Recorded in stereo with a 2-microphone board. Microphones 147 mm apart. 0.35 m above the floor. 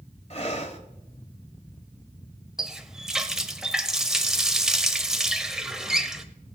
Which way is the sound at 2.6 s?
5° right (ahead or behind).